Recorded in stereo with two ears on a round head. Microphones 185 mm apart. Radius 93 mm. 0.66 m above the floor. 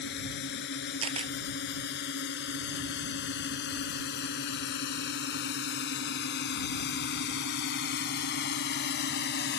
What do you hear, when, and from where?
0.0 s a drone: 55° left (ahead or behind)
1.0 s a camera shutter: 30° right (ahead or behind)